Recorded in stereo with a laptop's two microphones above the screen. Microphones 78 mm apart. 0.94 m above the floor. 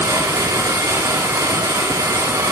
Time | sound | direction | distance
0.0 | a machine running | 45° right (ahead or behind) | 2 m